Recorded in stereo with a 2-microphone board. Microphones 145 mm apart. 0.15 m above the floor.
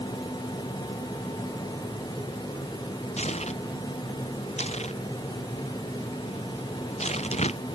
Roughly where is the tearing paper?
Left.